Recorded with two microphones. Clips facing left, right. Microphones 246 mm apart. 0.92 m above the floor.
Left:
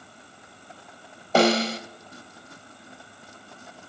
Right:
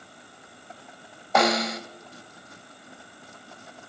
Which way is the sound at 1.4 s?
30° left (ahead or behind).